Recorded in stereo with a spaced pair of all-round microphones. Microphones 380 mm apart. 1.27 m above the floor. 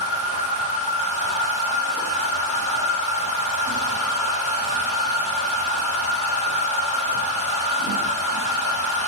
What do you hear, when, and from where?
0.0 s a machine running: 80° right, 3.5 m